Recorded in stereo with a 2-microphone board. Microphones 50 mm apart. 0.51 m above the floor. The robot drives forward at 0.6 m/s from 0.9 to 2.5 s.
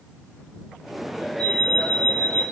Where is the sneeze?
I don't hear a sneeze.